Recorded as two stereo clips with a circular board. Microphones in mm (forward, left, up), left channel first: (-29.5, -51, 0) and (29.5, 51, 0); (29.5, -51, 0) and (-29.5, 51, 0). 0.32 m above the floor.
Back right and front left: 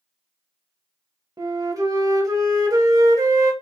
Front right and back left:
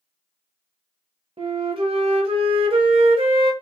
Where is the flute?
110° left, 0.9 m.